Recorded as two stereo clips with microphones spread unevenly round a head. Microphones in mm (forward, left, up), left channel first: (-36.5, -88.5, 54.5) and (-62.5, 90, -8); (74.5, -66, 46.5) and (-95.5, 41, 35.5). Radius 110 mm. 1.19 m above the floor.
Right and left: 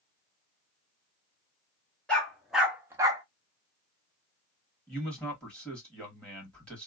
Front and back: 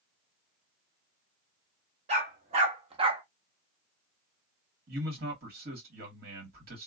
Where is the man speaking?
170° right, 1.7 m.